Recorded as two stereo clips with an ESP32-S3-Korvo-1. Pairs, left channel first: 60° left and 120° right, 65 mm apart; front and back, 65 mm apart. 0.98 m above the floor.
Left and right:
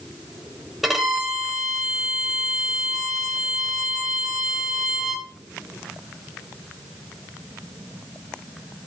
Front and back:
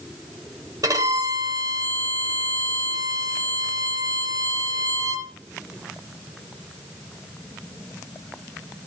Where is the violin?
150° left, 2 m.